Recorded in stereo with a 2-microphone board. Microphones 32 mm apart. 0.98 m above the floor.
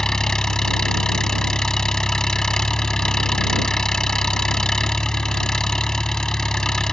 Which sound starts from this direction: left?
An engine running, at 0.0 s.